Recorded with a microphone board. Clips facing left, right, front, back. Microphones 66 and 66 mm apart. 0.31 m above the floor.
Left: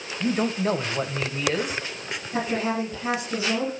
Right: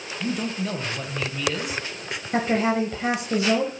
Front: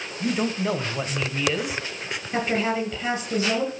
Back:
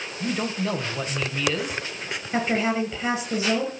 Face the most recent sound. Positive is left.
turn(degrees=-95)